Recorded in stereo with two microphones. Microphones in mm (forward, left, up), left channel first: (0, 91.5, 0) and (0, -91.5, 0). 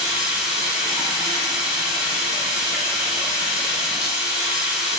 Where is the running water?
5° right (ahead or behind), 0.9 m.